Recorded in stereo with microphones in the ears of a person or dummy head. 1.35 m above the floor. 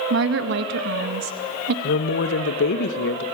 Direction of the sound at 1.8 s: 55° left (ahead or behind).